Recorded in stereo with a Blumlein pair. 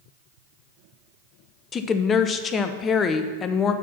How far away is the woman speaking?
About 0.6 m.